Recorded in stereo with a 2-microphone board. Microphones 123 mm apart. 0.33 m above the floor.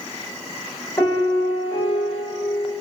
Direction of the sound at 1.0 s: 25° left (ahead or behind).